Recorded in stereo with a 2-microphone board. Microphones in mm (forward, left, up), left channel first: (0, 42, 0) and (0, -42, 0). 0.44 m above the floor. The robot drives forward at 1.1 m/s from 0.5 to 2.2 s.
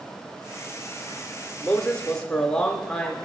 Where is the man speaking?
10° left (ahead or behind), 0.9 m.